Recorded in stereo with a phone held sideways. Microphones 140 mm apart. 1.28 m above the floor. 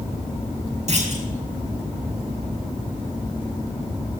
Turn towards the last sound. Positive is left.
turn(degrees=-55)  # may be behind; listen again after turning